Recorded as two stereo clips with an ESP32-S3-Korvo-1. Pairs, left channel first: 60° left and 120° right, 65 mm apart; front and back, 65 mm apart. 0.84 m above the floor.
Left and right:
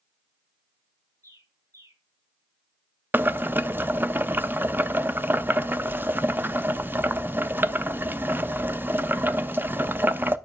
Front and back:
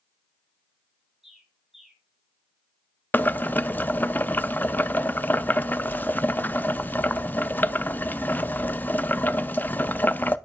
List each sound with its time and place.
1.2 s a bird: 95° right, 2 m
3.1 s boiling: 65° right, 0.5 m